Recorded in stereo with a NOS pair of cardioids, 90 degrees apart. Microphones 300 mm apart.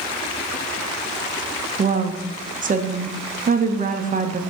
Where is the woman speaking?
25° right, 0.8 m.